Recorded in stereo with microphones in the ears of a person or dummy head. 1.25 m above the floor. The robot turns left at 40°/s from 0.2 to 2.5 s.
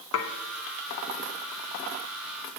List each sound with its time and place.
0.1 s dishes clattering: 80° left, 0.9 m